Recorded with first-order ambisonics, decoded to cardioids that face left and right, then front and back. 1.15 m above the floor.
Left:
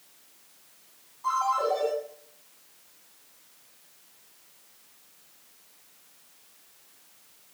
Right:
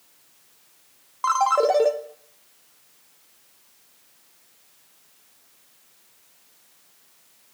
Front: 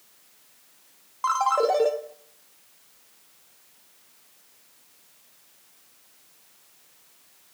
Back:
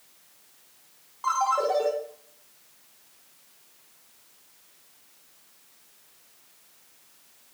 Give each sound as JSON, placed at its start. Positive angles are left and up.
{"t": 1.2, "sound": "a ringtone", "azimuth_deg": -65, "distance_m": 0.9}